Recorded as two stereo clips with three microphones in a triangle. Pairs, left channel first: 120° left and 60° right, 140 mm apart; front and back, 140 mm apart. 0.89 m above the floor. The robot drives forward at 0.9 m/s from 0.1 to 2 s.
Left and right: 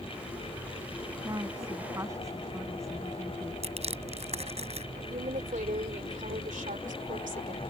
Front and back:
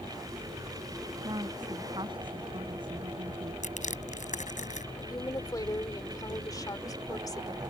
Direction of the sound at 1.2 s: 125° right.